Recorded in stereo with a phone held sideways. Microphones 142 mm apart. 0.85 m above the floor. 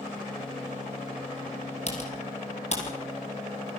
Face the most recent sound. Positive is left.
turn(degrees=50)  # may be behind; listen again after turning